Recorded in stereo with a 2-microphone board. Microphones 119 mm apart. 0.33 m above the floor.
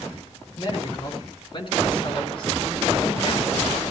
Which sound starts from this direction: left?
A man speaking, at 0.5 s.